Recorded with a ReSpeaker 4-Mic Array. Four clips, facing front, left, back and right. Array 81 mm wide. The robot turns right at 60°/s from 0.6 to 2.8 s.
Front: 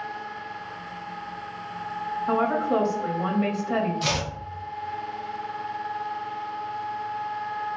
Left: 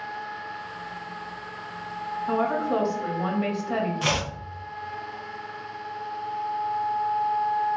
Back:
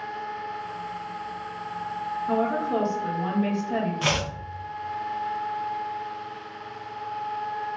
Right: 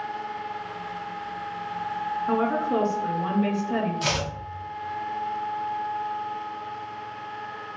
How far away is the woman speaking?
About 0.9 m.